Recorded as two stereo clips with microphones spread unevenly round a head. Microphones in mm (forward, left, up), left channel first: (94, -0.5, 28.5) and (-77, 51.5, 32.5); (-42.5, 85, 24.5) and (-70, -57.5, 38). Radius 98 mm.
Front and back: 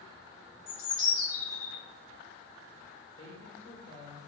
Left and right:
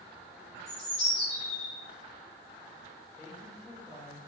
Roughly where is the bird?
Ahead.